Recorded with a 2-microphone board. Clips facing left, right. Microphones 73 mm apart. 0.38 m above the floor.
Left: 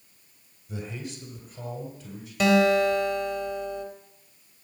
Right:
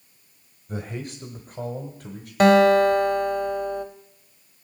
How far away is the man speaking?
About 1.3 m.